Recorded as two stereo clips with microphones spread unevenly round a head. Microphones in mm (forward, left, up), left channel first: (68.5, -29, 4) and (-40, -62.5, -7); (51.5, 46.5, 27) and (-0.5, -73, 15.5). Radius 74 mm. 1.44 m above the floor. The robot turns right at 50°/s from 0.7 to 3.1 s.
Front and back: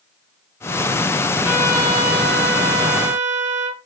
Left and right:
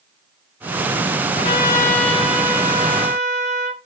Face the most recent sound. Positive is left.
turn(degrees=-160)